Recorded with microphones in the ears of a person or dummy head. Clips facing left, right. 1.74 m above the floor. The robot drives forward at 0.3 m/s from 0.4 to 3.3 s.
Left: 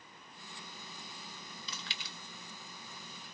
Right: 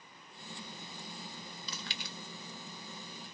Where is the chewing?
35° right (ahead or behind), 0.8 m; by 2.1 s 45° right (ahead or behind), 0.7 m.